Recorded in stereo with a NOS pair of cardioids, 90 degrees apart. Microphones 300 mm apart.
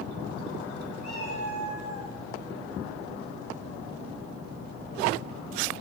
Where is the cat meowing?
60° left, 6 m.